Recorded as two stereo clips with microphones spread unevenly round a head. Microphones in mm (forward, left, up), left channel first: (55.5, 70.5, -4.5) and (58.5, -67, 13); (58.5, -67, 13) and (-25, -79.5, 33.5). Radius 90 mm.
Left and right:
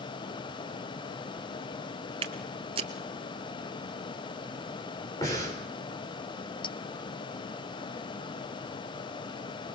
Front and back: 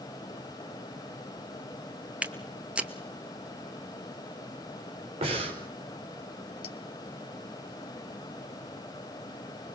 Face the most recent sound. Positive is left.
turn(degrees=35)